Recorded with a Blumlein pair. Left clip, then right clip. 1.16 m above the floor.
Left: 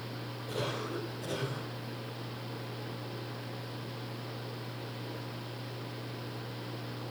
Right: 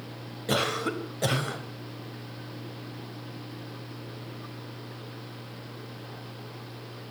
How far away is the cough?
About 5 m.